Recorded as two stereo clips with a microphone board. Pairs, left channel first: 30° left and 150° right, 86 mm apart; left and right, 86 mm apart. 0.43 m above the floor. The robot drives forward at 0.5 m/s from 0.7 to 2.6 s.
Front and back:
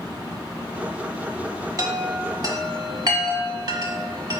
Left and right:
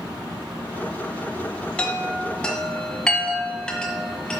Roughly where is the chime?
Behind.